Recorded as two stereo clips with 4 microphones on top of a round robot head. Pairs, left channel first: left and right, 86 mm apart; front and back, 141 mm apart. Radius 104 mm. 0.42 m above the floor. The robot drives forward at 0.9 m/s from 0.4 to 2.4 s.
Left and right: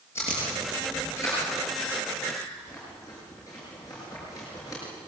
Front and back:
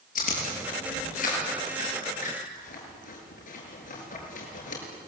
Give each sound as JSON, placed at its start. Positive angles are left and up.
{"t": 0.1, "sound": "chewing", "azimuth_deg": 20, "distance_m": 8.5}